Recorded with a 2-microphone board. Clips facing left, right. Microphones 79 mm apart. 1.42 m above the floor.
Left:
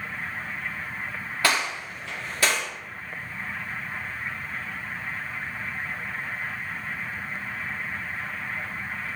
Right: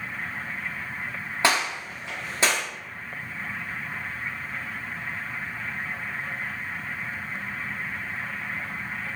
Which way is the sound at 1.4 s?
20° right (ahead or behind).